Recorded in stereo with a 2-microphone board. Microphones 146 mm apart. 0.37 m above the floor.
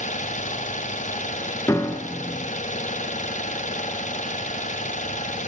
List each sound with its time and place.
0.0 s an engine running: 60° left (ahead or behind), 1.9 m
1.7 s a piano: 20° left (ahead or behind), 1.6 m